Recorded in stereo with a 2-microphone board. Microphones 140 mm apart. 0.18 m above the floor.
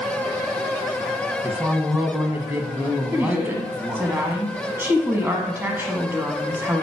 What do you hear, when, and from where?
1.4 s a man speaking: 10° right (ahead or behind), 1.1 m
3.1 s a woman speaking: 15° right (ahead or behind), 1.1 m